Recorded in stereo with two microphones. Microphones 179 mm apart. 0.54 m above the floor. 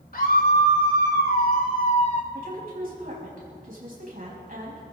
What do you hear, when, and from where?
0.1 s a scream: 60° left (ahead or behind), 2.5 m; by 2.2 s 45° left (ahead or behind), 1.9 m
2.3 s a woman speaking: 55° right (ahead or behind), 4.5 m